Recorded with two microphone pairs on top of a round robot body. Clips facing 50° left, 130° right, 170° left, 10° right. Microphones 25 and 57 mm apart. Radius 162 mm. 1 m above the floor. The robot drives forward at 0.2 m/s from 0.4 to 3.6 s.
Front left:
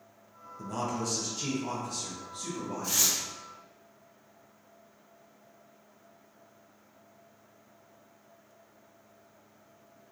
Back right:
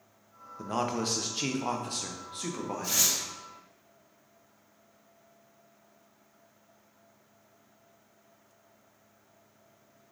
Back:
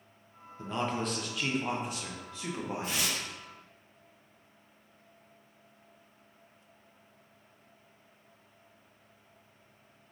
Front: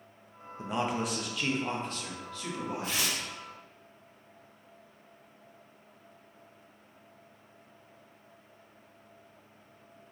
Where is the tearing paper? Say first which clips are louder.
Even, front 1 dB; 145° right, 1.6 m.